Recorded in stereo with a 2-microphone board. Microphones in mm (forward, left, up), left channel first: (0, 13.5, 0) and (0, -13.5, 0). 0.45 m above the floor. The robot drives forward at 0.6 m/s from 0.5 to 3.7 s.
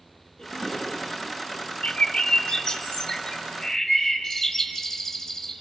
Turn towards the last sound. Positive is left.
turn(degrees=15)  # may be behind; listen again after turning